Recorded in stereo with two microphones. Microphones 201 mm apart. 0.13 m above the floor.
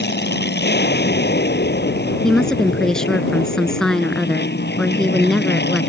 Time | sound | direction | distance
0.0 | an aircraft | 55° left (ahead or behind) | ?
2.2 | a woman speaking | 5° left (ahead or behind) | ?